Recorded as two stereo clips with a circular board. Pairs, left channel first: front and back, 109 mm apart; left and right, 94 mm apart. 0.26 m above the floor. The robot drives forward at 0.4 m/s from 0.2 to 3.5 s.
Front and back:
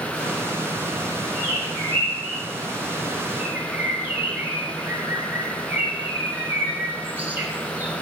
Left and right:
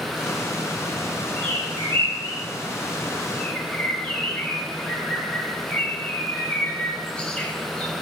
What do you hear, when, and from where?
1.4 s a bird: 60° right, 4 m; by 2.4 s 65° right, 3.5 m
3.4 s a bird: 145° left, 1.3 m